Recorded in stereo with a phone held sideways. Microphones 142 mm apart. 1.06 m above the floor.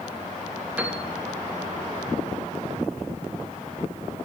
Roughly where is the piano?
Centre.